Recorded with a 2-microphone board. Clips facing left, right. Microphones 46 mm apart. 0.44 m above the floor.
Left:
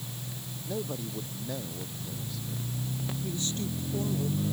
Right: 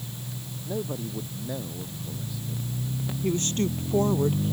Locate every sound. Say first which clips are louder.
0.7 s a man speaking: right 3 dB; 10° right (ahead or behind)
3.2 s a woman speaking: right 11 dB; 55° right (ahead or behind)